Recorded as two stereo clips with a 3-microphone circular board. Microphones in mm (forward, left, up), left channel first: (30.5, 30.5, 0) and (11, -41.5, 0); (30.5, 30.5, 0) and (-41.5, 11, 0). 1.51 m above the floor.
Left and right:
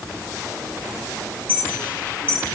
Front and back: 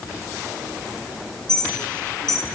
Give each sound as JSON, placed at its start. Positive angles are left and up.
{"t": 1.5, "sound": "a clink", "azimuth_deg": 5, "distance_m": 8.5}